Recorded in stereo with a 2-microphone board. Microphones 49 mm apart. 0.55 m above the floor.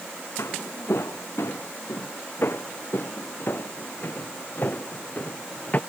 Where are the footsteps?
70° left (ahead or behind); by 5.8 s 35° left (ahead or behind).